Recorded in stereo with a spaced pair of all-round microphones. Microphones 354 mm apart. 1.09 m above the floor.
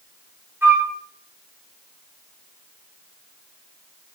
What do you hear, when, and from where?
0.6 s a flute: 5° right (ahead or behind), 1.7 m